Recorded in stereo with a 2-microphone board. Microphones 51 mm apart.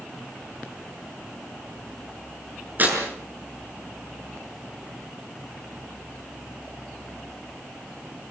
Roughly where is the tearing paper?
Right.